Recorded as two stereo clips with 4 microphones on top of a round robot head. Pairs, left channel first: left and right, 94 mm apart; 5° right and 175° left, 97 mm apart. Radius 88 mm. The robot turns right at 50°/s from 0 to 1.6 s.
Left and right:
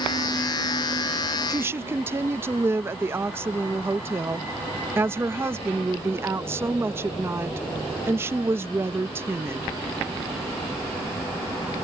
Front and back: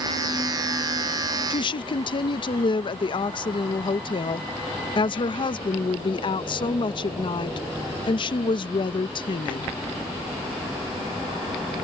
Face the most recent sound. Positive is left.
turn(degrees=-30)